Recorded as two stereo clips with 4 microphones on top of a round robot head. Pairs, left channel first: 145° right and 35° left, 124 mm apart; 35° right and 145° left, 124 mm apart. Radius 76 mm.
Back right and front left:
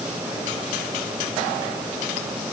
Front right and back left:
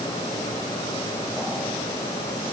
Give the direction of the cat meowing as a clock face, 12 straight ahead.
No cat meowing in this recording.